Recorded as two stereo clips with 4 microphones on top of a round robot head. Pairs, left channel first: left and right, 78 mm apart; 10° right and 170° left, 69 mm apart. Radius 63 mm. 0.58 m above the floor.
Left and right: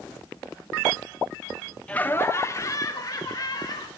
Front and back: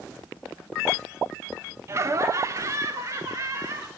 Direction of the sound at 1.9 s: 155° left.